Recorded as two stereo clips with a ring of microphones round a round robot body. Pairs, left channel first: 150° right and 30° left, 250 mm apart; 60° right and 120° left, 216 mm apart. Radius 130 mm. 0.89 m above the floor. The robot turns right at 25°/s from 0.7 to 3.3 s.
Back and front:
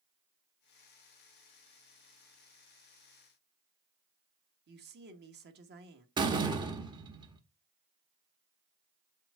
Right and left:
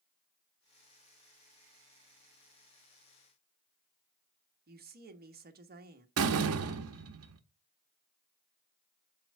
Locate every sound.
4.7 s a woman speaking: 75° left, 1.3 m
6.2 s a door slam: 105° left, 0.8 m